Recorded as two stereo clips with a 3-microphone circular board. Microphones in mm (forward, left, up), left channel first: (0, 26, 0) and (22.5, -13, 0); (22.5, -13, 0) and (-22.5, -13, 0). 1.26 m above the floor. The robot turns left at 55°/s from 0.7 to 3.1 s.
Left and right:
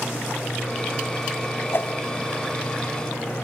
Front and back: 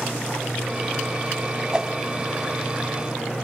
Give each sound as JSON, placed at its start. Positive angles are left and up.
{"t": 1.7, "sound": "a whoosh", "azimuth_deg": 110, "distance_m": 1.9}